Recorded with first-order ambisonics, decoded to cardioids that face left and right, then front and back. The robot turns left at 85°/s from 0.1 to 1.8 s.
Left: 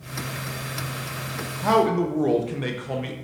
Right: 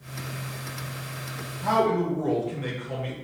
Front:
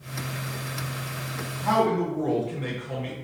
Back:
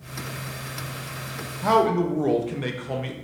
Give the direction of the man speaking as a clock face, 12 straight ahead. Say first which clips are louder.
Left 3 dB, back 3 dB; 7 o'clock.